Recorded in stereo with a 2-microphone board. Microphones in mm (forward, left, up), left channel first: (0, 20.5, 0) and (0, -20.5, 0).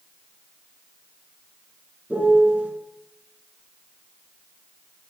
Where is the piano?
45° right (ahead or behind), 2.5 m.